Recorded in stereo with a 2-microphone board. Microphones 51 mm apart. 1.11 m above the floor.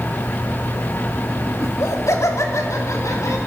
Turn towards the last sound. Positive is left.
turn(degrees=75)  # may be behind; listen again after turning